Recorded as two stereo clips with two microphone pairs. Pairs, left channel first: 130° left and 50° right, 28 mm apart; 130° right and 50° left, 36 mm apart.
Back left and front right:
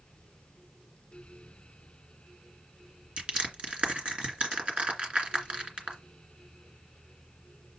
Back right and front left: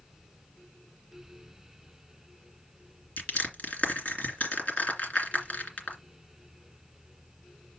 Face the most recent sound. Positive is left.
turn(degrees=-90)